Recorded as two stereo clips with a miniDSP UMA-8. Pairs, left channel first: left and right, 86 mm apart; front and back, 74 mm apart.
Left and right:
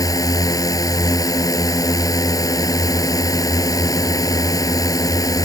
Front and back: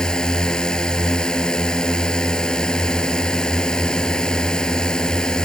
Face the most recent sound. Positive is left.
turn(degrees=75)